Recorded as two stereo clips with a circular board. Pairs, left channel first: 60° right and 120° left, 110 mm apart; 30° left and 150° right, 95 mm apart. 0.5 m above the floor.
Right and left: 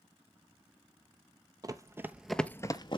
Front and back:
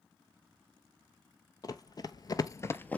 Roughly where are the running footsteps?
Left.